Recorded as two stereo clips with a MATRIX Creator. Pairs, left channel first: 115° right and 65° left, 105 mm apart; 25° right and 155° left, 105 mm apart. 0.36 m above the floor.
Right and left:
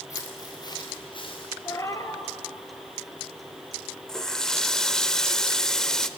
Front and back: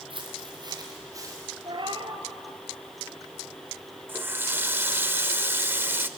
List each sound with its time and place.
0.1 s footsteps: 170° right, 3 m; by 1.5 s 140° right, 4 m
1.6 s a cat meowing: 170° right, 1.1 m
4.1 s a running tap: 175° left, 0.6 m